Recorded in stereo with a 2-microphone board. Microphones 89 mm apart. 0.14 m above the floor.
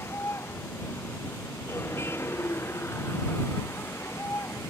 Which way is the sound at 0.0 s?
30° left (ahead or behind).